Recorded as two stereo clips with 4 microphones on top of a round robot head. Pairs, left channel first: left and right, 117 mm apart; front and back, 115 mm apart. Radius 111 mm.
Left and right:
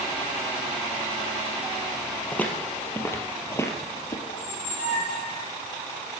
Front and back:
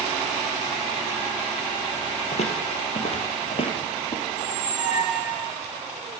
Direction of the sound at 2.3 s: 15° left.